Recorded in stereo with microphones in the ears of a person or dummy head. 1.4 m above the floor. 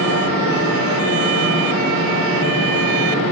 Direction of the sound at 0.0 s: 65° left (ahead or behind).